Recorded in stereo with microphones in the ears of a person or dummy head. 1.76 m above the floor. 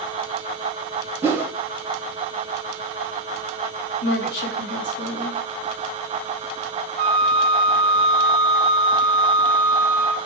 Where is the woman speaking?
65° left (ahead or behind), 2.5 m.